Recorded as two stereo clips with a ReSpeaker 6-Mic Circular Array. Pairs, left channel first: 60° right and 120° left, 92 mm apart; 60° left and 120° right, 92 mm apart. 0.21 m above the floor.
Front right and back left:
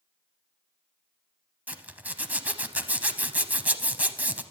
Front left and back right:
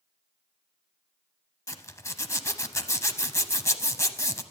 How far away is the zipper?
About 0.7 m.